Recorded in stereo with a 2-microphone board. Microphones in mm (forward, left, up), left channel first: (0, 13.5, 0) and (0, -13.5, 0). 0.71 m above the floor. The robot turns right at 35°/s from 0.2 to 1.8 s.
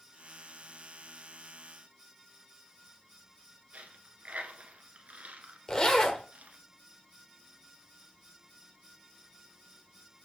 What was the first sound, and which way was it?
A dropped coin, 65° right (ahead or behind).